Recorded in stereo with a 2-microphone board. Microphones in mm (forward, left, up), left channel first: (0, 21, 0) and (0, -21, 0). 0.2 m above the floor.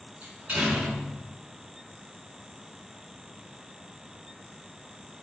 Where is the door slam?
30° right (ahead or behind), 1.7 m.